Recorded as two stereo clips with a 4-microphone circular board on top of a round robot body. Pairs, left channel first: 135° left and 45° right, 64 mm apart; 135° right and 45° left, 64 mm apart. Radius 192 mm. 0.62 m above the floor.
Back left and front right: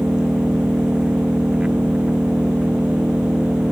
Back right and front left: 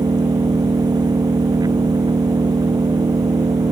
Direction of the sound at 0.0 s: 30° left.